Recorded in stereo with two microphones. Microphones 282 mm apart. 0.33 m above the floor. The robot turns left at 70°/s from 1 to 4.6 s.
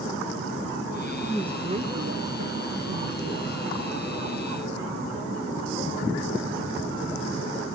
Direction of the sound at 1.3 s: 5° left.